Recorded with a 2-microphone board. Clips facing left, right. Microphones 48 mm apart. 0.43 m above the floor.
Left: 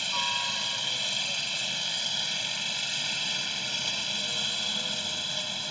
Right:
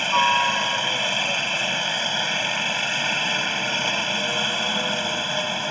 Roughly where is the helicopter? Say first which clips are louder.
Right 12 dB; right.